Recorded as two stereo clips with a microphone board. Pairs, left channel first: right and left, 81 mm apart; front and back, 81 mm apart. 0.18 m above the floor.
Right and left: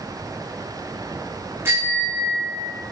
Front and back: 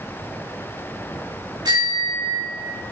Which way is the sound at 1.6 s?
150° left.